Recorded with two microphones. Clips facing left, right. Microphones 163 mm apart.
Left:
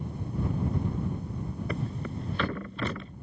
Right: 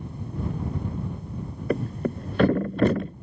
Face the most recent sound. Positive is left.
turn(degrees=-50)  # may be behind; listen again after turning